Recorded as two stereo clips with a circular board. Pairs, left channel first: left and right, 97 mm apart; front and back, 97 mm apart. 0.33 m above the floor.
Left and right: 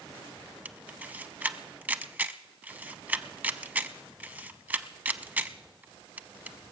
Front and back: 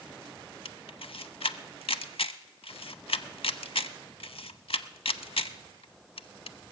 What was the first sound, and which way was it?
A camera shutter, 15° right.